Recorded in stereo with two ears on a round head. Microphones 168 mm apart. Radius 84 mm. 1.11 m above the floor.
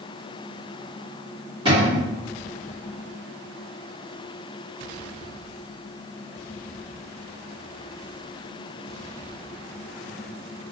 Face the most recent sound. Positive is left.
turn(degrees=-25)  # may be behind; listen again after turning